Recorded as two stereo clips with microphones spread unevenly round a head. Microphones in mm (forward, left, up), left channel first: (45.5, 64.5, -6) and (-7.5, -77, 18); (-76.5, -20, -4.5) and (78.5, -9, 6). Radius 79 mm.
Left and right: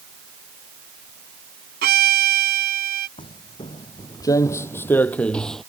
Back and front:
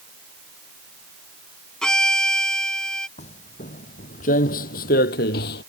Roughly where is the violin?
Right.